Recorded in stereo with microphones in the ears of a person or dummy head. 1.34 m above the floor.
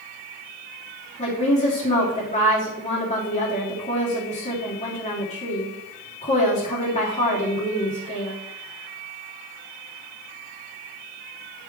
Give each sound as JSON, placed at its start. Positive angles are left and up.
{"t": 1.2, "sound": "a woman speaking", "side_deg": 30, "distance_m": 3.5}